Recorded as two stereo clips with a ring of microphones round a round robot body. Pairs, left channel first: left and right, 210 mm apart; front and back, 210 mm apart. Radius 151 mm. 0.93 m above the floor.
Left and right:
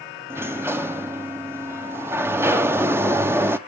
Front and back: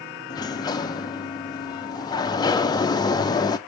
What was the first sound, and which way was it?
A sliding door, 30° right.